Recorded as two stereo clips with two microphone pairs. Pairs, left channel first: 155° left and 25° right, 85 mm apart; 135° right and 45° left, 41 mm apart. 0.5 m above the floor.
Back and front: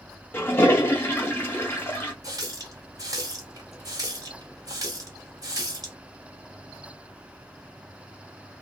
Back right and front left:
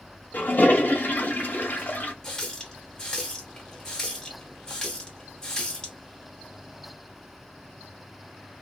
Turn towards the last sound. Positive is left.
turn(degrees=-60)